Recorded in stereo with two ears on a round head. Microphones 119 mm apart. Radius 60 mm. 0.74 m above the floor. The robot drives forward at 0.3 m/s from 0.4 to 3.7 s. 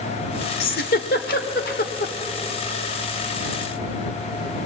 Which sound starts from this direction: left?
A giggle, at 0.6 s.